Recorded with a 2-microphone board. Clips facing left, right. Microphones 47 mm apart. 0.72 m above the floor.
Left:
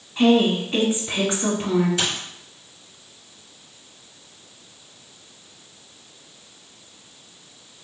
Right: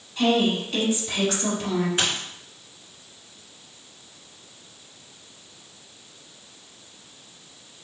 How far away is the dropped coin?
About 2 m.